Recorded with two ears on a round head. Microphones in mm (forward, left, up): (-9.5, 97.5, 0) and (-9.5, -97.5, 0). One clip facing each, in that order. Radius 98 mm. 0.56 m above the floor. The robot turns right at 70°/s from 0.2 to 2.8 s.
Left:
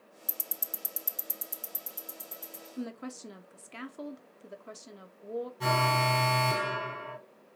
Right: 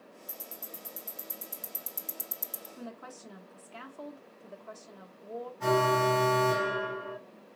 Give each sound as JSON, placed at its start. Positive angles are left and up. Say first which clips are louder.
{"t": 0.3, "sound": "ticking", "louder": "left 1 dB", "side_deg": 45, "distance_m": 0.6}
{"t": 2.8, "sound": "a woman speaking", "louder": "left 8 dB", "side_deg": 25, "distance_m": 0.7}
{"t": 5.6, "sound": "an alarm", "louder": "right 6 dB", "side_deg": 45, "distance_m": 2.5}